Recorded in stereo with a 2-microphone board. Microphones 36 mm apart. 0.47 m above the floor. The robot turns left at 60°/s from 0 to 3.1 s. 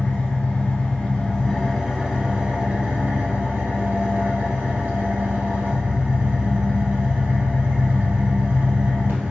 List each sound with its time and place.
0.0 s an engine running: 110° left, 1.9 m; by 9.3 s 75° right, 1.9 m